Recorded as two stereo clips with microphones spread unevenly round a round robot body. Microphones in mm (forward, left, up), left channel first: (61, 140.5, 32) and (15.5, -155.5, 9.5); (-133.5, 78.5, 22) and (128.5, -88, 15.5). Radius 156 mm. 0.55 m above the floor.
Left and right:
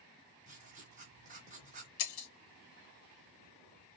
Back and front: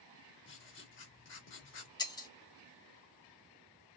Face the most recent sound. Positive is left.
turn(degrees=70)